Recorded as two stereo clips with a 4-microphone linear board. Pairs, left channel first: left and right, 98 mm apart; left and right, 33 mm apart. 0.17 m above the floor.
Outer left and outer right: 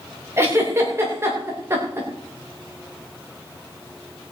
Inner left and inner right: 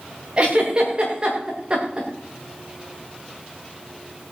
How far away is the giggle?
About 7 m.